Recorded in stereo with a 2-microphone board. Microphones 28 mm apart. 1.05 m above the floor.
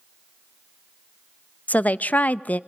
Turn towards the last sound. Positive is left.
turn(degrees=65)  # may be behind; listen again after turning